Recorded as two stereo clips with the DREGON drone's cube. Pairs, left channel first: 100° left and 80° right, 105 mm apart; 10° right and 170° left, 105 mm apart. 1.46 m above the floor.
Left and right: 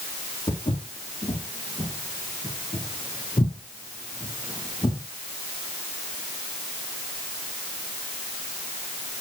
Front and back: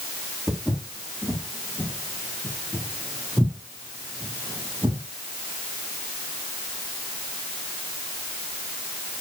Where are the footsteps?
80° left, 4 m; by 5.0 s 120° left, 2.5 m.